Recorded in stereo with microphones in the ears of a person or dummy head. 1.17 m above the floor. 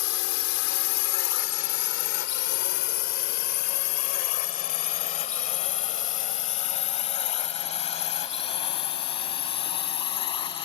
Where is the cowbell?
No cowbell in this recording.